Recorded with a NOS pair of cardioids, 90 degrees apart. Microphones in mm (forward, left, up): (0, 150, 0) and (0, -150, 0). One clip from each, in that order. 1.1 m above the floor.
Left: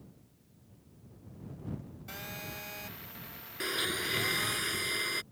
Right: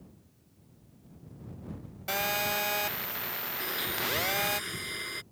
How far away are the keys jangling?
I don't hear keys jangling.